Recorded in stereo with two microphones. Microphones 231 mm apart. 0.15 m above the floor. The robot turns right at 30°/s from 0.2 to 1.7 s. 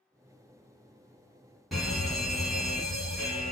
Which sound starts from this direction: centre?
A fire alarm, at 1.7 s.